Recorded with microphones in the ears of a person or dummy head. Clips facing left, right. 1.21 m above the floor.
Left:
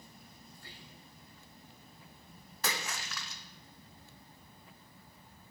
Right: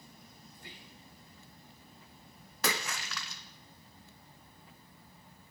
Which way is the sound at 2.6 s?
60° right (ahead or behind).